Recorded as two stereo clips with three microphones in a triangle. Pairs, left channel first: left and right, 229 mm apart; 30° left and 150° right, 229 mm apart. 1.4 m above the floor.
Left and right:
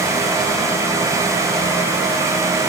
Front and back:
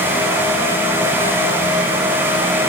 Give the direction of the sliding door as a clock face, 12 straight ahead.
I don't hear a sliding door.